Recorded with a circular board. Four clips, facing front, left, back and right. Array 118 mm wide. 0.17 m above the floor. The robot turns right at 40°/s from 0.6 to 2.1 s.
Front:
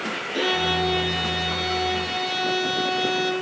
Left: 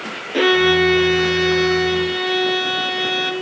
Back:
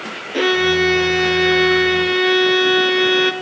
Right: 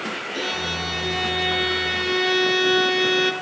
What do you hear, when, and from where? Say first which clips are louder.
0.3 s a violin: left 18 dB, back 8 dB; 125° left, 0.6 m; by 3.3 s 175° right, 0.6 m